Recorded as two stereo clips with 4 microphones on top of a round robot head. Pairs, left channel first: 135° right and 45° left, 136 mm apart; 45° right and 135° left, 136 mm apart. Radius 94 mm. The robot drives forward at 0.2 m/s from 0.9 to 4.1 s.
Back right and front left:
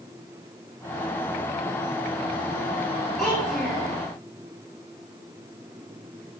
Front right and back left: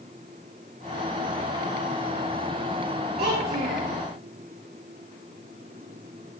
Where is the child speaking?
145° left, 3.5 m.